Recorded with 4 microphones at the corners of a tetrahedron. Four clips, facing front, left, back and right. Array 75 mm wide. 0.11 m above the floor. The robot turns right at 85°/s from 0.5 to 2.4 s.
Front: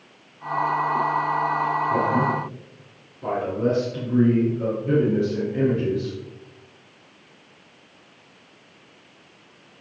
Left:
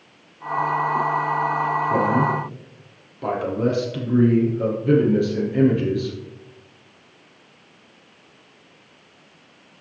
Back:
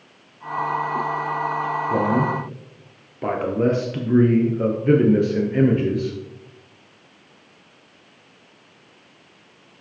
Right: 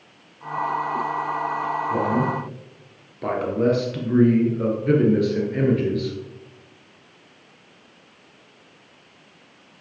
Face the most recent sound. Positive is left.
turn(degrees=-175)